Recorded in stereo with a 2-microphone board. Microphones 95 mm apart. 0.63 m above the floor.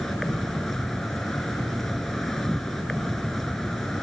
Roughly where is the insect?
Centre.